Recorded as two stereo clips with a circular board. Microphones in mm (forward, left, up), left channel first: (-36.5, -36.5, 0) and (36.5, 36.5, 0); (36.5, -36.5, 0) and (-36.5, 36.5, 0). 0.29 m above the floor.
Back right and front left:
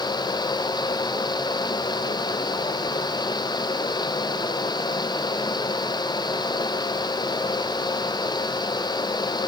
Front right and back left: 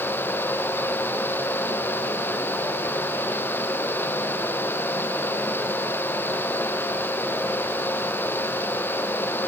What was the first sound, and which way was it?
Only background noise.